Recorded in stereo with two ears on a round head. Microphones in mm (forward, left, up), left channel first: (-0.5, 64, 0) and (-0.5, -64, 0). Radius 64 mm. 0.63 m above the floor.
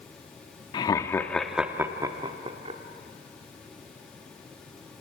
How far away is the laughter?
About 1.1 m.